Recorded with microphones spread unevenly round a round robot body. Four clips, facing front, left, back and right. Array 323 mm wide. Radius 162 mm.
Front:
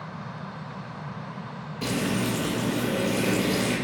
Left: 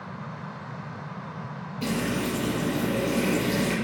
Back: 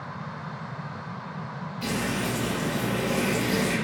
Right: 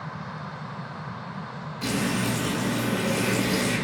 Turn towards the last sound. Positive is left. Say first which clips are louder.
# right 1 dB, front 2 dB
turn(degrees=30)